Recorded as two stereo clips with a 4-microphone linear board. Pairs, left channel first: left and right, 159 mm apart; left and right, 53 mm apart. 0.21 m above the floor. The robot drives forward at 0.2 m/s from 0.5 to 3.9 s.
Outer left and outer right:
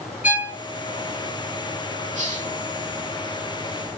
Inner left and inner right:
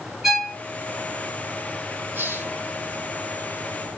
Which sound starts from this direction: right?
A hiss, at 2.1 s.